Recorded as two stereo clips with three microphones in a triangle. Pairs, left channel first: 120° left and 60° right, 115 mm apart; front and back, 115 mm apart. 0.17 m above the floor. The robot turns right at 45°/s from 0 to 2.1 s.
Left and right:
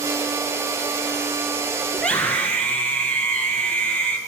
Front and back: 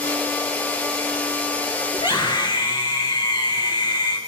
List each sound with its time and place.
1.9 s a scream: 35° left, 2.5 m; by 4.2 s 40° left, 2.5 m